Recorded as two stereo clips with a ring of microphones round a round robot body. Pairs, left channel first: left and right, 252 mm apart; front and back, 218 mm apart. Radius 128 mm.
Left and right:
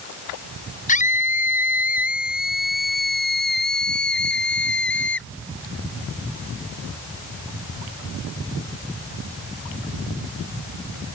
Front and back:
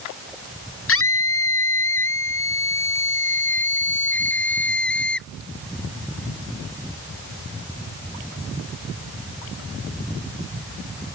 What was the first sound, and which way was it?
A scream, 25° left.